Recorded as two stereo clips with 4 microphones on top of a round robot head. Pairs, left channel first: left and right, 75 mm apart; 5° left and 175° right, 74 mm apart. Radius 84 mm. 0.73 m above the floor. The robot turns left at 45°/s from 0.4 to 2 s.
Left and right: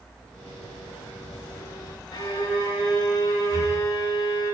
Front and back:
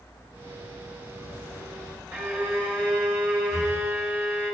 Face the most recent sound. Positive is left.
turn(degrees=45)